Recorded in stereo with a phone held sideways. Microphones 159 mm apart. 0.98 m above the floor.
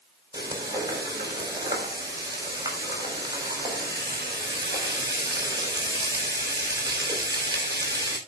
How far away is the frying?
About 5 m.